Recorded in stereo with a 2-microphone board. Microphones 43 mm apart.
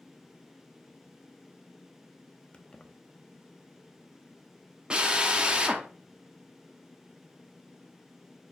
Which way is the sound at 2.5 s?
25° left (ahead or behind).